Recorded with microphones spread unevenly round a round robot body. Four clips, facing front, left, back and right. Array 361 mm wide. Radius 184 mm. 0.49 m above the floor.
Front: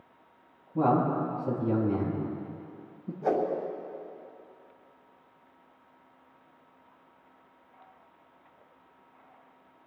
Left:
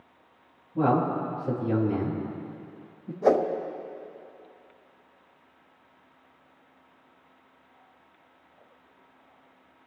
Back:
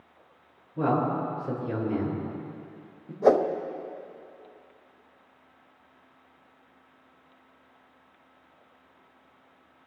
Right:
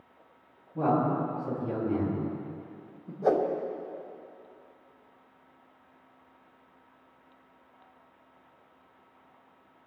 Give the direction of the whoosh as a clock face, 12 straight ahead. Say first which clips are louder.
Left 3 dB, back 7 dB; 7 o'clock.